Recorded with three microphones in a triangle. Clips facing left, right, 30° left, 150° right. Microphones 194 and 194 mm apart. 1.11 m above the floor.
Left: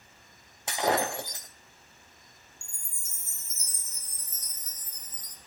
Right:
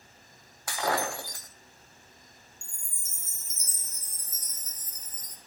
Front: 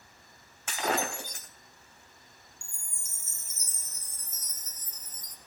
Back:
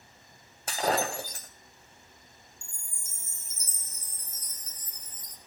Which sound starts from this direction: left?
A chime, at 2.6 s.